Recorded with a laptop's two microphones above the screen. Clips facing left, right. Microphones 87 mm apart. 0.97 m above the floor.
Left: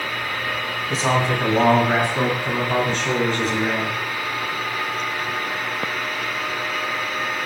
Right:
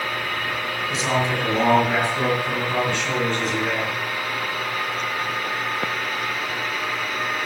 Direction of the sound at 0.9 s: 45° left (ahead or behind).